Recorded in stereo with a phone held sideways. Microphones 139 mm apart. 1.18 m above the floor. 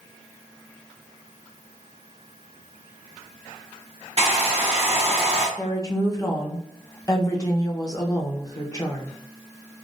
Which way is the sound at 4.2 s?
50° right (ahead or behind).